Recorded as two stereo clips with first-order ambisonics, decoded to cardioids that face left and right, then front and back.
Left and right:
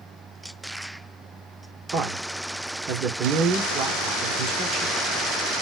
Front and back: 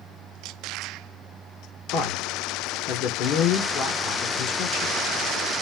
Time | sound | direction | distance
1.9 | a man speaking | 40° right | 1.4 m